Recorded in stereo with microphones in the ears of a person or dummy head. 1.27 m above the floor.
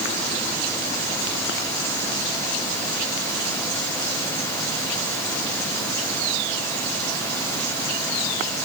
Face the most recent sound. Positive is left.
No sound to turn to.